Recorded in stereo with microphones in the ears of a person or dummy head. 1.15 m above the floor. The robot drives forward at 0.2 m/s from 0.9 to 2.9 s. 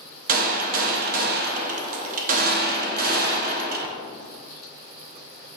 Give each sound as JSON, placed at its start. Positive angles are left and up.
{"t": 0.3, "sound": "a gunshot", "side_deg": -35, "distance_m": 0.7}